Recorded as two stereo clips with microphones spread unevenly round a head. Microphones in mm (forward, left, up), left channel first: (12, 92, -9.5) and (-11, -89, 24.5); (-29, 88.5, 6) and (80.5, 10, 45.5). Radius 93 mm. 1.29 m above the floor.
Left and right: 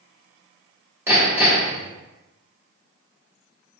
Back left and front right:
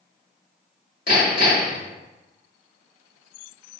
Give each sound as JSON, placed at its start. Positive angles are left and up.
{"t": 1.1, "sound": "hammering", "azimuth_deg": -165, "distance_m": 1.5}